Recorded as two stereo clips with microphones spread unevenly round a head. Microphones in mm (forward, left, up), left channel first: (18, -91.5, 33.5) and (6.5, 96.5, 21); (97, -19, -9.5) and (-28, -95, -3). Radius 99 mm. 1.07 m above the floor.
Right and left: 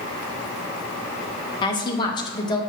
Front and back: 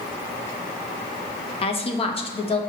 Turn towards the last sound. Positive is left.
turn(degrees=-15)